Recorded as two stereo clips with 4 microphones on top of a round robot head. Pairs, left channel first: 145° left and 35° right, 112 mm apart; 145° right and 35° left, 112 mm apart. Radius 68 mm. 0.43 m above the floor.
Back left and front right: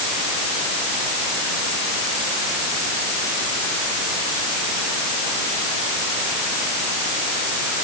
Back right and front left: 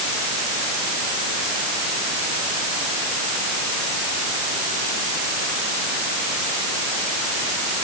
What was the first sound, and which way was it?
Only background noise.